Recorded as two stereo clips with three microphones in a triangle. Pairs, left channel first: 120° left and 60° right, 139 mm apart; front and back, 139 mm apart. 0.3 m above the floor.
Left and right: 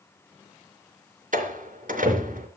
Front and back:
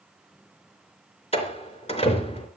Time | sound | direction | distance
1.3 | a door slam | 40° right | 3.5 m